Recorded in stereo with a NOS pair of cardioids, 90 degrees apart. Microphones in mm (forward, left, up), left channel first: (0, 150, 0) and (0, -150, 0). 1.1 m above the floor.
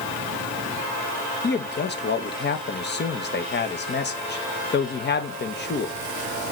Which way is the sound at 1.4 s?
35° left.